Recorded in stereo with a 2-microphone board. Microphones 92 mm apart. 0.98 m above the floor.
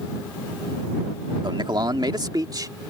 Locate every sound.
1.4 s a man speaking: 60° right (ahead or behind); by 2.7 s 45° right (ahead or behind)